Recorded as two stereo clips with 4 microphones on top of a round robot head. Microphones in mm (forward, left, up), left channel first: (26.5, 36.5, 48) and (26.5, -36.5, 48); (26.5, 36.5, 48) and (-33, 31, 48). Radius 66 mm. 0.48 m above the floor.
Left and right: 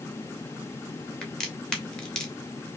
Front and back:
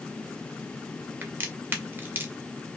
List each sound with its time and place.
1.2 s a crack: 165° left, 1.4 m